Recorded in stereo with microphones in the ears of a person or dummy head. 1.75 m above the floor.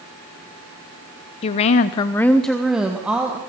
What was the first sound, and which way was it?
A woman speaking, 25° left (ahead or behind).